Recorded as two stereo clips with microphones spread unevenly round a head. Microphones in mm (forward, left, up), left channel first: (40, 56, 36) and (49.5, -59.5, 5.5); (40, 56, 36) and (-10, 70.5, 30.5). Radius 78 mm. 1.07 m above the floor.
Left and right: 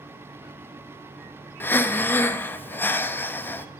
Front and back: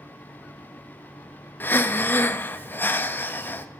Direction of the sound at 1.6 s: 30° left.